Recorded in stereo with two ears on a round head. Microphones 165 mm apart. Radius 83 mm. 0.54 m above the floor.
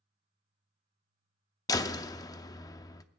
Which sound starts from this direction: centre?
A door slam, at 1.7 s.